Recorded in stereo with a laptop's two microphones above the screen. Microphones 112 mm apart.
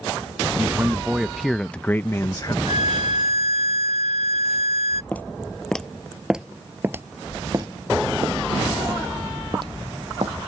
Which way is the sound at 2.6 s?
80° right.